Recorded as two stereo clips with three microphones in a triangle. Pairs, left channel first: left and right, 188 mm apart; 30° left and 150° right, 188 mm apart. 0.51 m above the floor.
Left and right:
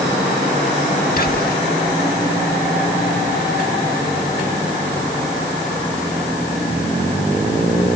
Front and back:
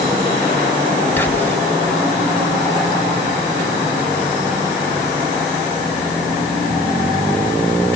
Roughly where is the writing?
No writing in this recording.